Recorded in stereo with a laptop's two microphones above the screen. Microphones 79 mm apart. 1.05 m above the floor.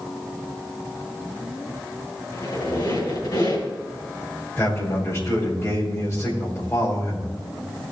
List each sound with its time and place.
2.3 s a squeak: 55° left (ahead or behind), 4 m
4.6 s a man speaking: 40° left (ahead or behind), 5 m